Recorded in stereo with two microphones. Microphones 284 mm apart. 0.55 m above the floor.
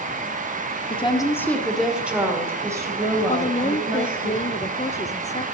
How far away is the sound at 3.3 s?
About 0.7 m.